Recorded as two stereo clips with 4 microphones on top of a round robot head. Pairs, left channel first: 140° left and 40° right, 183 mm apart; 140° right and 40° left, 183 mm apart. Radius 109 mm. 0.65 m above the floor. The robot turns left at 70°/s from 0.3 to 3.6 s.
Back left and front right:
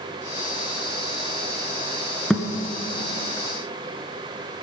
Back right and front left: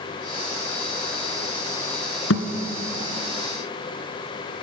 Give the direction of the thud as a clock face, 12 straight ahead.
4 o'clock.